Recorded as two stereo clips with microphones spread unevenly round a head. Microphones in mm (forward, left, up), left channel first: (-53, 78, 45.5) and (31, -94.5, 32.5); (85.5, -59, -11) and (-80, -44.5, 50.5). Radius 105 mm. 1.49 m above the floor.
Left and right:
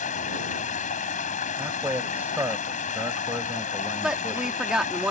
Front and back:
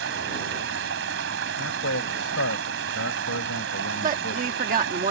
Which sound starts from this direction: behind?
Running water, at 0.0 s.